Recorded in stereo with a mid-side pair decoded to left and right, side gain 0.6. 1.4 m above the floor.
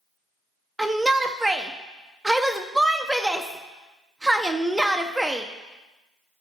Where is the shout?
10° right, 0.5 m.